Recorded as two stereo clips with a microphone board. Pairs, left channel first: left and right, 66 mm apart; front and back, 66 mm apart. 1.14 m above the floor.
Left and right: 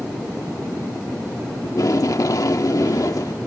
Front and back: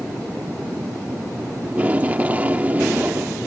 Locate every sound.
1.6 s tape being pulled: 115° left